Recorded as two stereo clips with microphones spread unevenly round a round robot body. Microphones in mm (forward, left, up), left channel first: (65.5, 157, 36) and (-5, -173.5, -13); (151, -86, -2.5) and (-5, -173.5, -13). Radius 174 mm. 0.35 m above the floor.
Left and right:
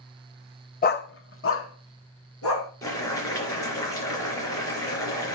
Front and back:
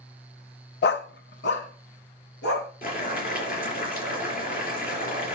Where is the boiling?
5° right, 4 m.